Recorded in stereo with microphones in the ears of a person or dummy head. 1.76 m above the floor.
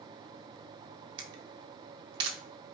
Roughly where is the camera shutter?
Right.